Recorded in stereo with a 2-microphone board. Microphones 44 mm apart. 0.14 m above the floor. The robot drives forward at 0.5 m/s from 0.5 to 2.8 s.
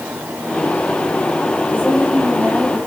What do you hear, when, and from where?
1.7 s a woman speaking: 40° right (ahead or behind), 6.5 m; by 2.8 s 35° right (ahead or behind), 7 m